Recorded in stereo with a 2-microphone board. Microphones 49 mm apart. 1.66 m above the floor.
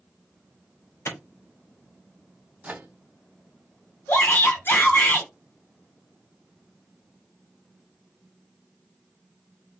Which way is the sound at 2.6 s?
30° right (ahead or behind).